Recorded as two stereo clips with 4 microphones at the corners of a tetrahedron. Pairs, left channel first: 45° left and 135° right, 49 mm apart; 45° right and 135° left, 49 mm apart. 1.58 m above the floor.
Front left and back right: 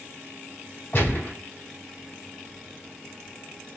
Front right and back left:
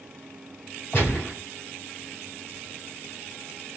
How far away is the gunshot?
About 3 m.